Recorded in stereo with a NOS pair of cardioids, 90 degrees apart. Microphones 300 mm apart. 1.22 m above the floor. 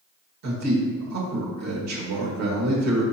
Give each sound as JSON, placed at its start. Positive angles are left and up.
{"t": 0.4, "sound": "a man speaking", "azimuth_deg": -65, "distance_m": 1.7}